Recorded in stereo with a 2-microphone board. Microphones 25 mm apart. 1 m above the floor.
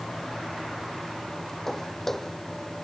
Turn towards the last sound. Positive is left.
turn(degrees=15)  # may be behind; listen again after turning